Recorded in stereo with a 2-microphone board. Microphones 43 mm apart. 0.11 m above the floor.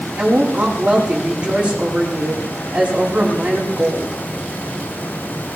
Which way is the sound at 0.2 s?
30° right (ahead or behind).